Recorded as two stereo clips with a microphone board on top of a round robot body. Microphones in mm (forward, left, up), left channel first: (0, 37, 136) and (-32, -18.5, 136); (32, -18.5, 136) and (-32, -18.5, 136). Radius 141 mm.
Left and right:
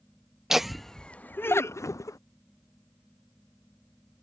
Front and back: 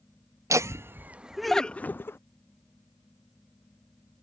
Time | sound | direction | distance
0.5 | laughter | 160° left | ?